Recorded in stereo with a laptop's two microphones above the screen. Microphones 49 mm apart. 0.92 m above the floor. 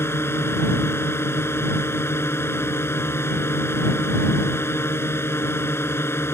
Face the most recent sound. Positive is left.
turn(degrees=60)  # may be behind; listen again after turning